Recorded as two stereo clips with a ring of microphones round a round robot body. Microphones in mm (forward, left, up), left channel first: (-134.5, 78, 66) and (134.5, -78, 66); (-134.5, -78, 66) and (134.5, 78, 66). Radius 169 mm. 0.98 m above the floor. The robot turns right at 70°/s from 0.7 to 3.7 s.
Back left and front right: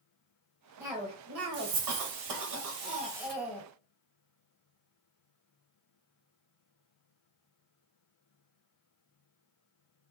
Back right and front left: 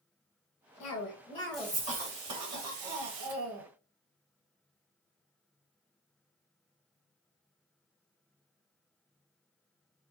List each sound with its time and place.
0.8 s a cough: 115° right, 1.3 m; by 3.7 s 85° left, 1.3 m